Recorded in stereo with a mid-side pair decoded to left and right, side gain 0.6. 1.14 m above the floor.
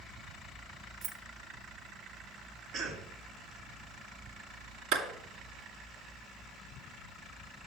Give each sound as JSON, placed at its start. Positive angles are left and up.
{"t": 1.0, "sound": "keys jangling", "azimuth_deg": -60, "distance_m": 1.1}
{"t": 2.7, "sound": "a cough", "azimuth_deg": -65, "distance_m": 2.0}
{"t": 4.9, "sound": "a clap", "azimuth_deg": -65, "distance_m": 2.0}